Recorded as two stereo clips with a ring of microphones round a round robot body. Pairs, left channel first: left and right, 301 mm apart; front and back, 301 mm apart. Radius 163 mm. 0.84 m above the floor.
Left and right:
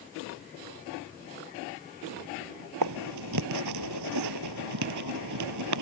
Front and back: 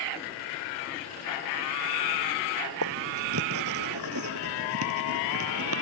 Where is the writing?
130° right.